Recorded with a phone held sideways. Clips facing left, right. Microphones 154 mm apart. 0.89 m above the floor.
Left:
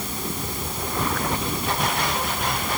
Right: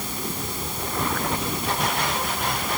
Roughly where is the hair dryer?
I don't hear a hair dryer.